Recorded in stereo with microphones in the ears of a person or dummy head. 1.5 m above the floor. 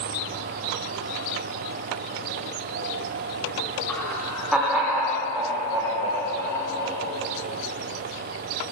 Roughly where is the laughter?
Centre.